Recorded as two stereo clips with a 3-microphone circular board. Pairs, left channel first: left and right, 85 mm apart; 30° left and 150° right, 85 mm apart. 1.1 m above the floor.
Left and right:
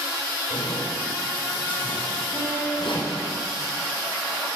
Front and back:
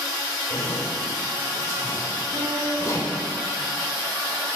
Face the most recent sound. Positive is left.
turn(degrees=-170)